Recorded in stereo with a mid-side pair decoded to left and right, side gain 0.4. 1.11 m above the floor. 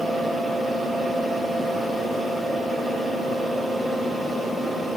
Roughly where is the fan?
Ahead right.